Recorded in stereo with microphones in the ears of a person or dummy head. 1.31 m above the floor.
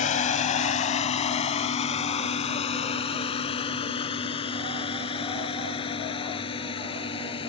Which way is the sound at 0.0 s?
45° left (ahead or behind).